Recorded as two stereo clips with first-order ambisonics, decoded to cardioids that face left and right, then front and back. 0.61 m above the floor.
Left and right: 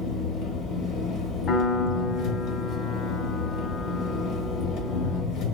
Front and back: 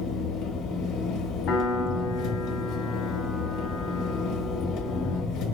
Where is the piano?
40° left, 1.0 m.